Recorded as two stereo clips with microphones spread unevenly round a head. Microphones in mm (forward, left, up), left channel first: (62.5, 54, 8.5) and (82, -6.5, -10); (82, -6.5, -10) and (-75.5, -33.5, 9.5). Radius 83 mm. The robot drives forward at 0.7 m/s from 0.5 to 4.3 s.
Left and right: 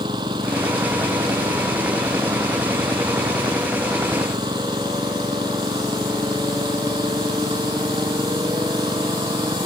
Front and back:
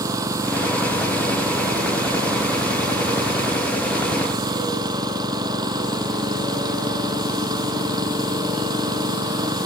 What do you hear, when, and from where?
0.0 s an engine running: 100° right; by 9.7 s 105° right